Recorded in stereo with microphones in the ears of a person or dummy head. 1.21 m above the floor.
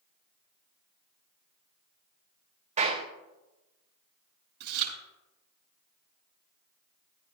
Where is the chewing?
60° right (ahead or behind), 6.5 m.